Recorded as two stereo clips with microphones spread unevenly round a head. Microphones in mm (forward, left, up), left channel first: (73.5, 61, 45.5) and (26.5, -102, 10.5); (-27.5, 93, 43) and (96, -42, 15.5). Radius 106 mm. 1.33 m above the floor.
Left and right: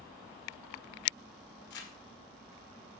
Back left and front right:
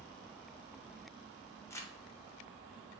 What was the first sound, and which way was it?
Crumpling, 55° left.